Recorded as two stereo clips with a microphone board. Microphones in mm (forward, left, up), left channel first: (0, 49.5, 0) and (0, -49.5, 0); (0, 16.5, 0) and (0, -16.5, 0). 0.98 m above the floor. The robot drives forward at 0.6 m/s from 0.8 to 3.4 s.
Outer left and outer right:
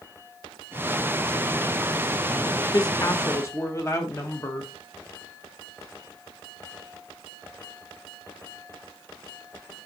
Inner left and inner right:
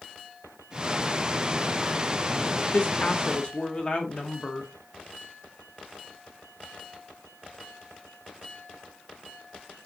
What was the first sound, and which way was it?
A woman speaking, 40° left (ahead or behind).